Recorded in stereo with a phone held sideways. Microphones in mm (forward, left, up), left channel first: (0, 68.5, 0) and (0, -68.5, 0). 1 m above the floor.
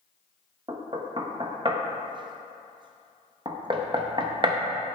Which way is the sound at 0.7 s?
35° right (ahead or behind).